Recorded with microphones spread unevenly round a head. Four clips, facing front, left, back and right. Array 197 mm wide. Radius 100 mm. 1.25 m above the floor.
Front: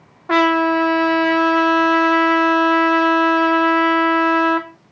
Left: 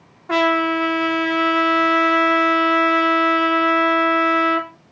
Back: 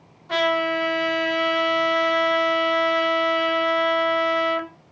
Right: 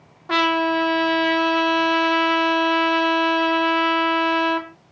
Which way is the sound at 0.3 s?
5° right.